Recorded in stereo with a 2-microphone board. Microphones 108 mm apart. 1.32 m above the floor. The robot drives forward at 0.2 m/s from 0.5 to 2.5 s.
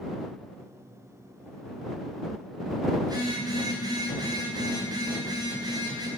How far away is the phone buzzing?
About 5 m.